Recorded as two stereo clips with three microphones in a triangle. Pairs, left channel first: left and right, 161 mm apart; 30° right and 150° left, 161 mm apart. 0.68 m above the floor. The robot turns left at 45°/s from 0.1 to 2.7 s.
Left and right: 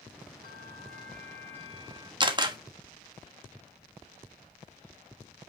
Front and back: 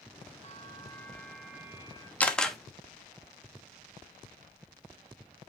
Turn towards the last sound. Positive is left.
turn(degrees=-125)